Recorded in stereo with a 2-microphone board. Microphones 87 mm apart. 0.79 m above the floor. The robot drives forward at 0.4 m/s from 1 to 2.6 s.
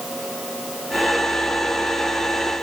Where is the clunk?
No clunk in this recording.